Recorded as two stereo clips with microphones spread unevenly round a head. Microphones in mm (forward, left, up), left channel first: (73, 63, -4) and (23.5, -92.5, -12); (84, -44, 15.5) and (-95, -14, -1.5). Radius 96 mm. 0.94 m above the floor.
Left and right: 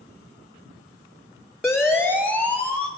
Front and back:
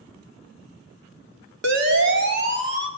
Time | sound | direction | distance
1.6 | a siren | 160° left | 3 m